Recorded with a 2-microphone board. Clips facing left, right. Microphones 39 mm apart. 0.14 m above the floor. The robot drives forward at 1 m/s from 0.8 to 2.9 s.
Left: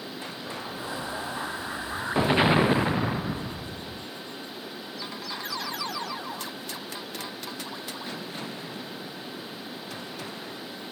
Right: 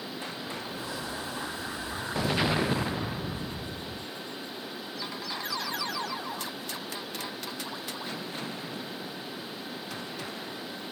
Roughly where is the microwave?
No microwave in this recording.